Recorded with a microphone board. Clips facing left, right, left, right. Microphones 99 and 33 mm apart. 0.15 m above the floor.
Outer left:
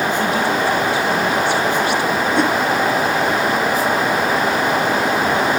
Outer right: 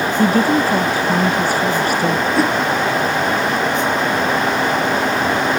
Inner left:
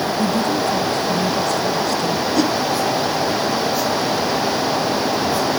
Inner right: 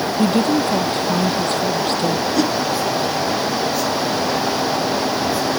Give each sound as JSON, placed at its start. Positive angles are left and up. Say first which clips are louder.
{"t": 0.2, "sound": "a woman speaking", "louder": "outer right 3 dB, inner right 4 dB", "side_deg": -50}
{"t": 2.4, "sound": "a whoosh", "louder": "outer left 1 dB, inner left 2 dB", "side_deg": 0}